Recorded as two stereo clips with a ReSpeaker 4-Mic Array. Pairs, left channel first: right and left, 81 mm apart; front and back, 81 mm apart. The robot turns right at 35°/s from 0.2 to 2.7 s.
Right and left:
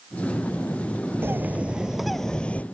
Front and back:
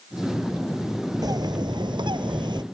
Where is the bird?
150° left; by 2.6 s 160° right.